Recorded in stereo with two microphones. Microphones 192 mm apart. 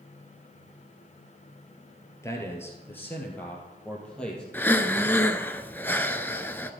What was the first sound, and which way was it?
A man speaking, 15° left (ahead or behind).